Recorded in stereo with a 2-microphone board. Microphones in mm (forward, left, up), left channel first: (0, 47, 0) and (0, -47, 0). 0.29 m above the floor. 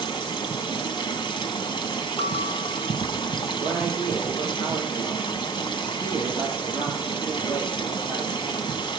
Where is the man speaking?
25° right (ahead or behind), 9 m.